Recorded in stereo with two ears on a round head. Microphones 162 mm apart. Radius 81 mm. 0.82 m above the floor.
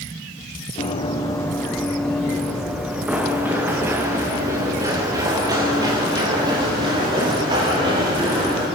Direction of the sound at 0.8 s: 30° left (ahead or behind).